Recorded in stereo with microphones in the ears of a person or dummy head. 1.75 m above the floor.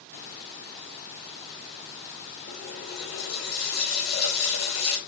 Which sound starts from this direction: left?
A running tap, at 2.5 s.